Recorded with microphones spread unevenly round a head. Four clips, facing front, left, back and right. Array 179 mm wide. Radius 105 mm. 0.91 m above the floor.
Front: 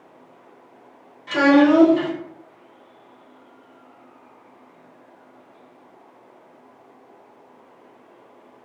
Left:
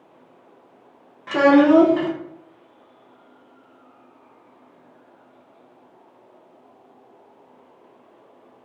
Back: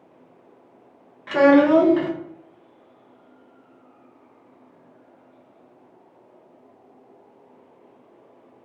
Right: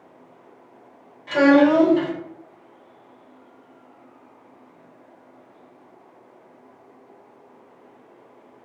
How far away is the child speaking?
About 0.8 m.